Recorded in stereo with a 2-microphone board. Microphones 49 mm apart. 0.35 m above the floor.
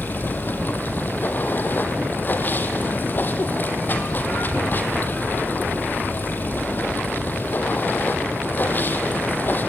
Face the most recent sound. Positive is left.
turn(degrees=40)  # may be behind; listen again after turning